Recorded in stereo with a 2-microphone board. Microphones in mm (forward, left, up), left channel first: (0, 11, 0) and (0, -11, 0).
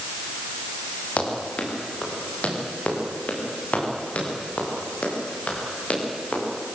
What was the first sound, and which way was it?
Running footsteps, 80° left.